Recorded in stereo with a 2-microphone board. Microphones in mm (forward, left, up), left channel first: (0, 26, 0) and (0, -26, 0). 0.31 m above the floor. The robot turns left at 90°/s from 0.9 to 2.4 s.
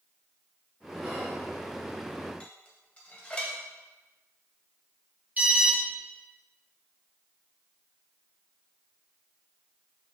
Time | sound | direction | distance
1.0 | whispering | 5° right | 2.0 m
2.4 | dishes clattering | 20° left (ahead or behind) | 1.0 m
5.4 | an alarm | 30° right (ahead or behind) | 1.3 m